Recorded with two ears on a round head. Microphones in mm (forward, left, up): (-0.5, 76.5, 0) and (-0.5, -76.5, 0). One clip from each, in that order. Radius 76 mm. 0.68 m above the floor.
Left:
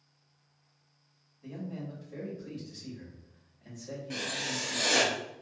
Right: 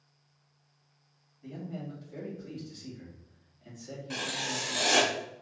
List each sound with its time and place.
1.4 s a man speaking: 10° left (ahead or behind), 1.6 m
4.1 s writing: 25° right (ahead or behind), 1.1 m